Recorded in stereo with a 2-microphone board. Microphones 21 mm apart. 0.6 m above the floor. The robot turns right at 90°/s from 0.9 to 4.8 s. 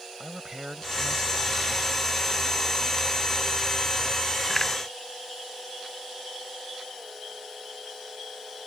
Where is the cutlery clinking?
I don't hear cutlery clinking.